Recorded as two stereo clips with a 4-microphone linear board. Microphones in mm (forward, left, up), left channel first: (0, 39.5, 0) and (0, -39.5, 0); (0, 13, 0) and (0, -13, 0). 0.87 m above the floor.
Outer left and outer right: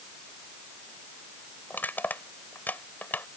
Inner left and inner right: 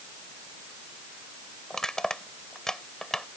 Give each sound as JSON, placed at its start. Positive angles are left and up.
{"t": 1.7, "sound": "crushing", "side_deg": 25}